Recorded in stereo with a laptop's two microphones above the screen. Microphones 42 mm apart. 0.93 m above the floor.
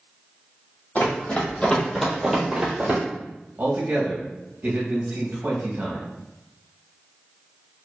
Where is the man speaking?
50° right (ahead or behind), 1.0 m.